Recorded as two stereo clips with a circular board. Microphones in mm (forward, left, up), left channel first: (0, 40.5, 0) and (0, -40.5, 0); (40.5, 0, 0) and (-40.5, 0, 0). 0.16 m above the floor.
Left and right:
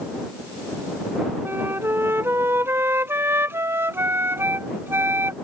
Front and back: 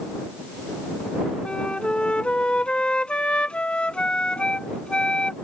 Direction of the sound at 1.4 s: 65° right.